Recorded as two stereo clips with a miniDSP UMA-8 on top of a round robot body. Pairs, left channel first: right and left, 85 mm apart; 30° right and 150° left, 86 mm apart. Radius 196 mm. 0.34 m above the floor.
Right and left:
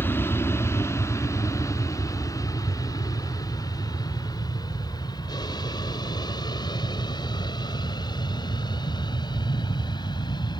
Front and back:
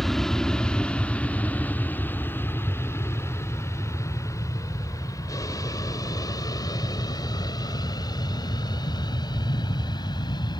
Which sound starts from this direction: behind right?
An aircraft, at 0.0 s.